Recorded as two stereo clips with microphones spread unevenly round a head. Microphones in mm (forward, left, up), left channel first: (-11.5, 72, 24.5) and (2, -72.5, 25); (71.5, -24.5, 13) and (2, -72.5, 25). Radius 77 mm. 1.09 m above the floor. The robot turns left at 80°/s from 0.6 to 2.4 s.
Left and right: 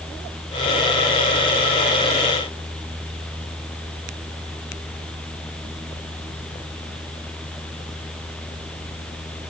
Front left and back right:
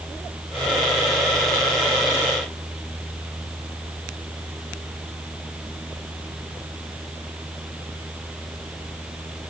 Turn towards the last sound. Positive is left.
No sound to turn to.